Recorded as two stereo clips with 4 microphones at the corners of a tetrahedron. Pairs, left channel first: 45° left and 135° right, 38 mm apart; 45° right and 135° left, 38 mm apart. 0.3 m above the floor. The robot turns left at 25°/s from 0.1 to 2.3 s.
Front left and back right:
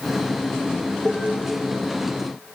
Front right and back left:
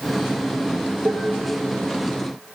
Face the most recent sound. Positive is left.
turn(degrees=125)